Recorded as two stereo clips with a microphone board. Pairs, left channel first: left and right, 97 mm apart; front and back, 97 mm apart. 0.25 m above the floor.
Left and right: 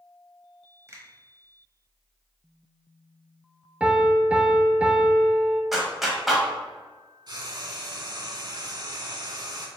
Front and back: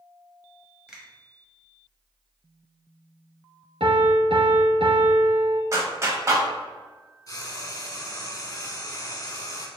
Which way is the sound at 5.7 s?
175° right.